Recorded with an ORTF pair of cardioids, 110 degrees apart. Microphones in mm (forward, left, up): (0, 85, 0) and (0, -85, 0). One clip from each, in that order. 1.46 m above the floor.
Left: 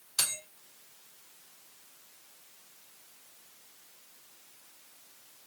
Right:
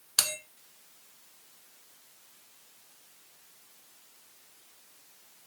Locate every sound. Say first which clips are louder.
0.2 s a bell: right 4 dB; 60° right, 1.2 m